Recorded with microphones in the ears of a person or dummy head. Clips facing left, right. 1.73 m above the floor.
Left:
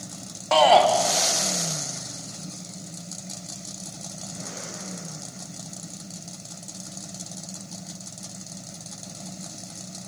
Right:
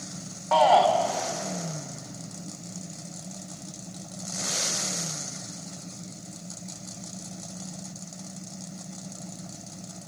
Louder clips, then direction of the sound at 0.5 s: Left 3 dB; 55° left (ahead or behind).